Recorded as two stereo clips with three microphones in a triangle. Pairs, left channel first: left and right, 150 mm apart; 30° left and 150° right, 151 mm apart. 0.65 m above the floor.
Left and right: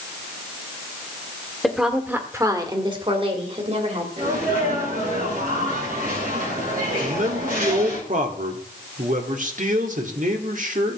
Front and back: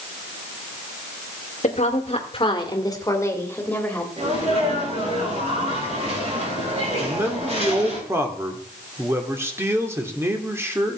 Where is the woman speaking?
Straight ahead, 1.7 m; by 4.1 s 50° right, 3 m.